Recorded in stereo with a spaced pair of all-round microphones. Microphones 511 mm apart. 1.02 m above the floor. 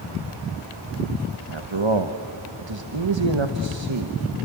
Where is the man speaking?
60° right (ahead or behind), 1.2 m.